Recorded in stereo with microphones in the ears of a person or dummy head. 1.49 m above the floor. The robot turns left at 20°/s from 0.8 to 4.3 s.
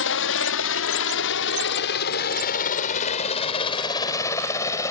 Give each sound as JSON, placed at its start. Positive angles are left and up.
{"t": 0.0, "sound": "a helicopter", "side_deg": 65}